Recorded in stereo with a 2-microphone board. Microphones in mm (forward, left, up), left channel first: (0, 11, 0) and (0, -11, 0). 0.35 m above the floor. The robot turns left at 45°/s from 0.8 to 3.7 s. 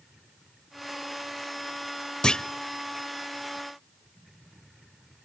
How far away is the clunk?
About 0.6 m.